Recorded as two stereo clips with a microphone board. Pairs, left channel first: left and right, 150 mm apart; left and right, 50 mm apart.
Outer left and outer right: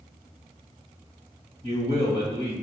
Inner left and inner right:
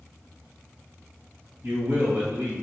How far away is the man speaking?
About 1.9 m.